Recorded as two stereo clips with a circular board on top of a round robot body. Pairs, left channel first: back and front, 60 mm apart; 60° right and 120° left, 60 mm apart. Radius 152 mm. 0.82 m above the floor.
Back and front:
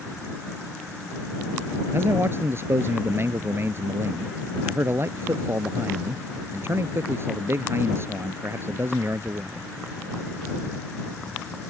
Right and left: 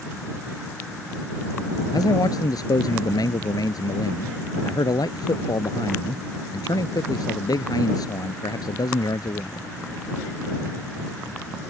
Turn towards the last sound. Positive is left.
turn(degrees=-50)